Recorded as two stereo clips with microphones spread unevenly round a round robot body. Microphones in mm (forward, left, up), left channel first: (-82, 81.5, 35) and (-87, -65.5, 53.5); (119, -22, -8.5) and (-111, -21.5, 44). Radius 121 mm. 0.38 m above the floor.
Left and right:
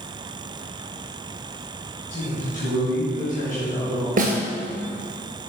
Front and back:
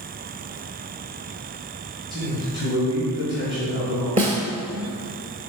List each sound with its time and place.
2.1 s a man speaking: 100° left, 2.5 m
4.2 s a snare drum: 120° right, 1.5 m